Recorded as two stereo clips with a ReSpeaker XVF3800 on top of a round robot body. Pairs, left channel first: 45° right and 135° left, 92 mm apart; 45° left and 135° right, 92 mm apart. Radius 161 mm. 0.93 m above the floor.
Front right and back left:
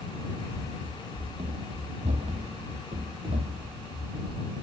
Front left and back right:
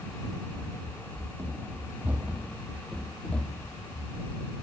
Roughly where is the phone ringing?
I don't hear a phone ringing.